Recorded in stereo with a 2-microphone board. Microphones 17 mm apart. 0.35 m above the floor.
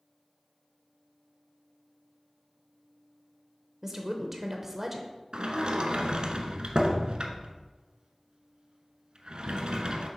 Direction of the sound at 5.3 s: 60° right (ahead or behind).